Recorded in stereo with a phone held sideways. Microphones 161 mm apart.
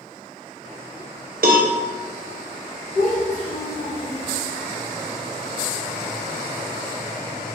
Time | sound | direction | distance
1.4 | a cowbell | 70° right (ahead or behind) | 0.6 m
2.9 | a child speaking | 70° left (ahead or behind) | 1.3 m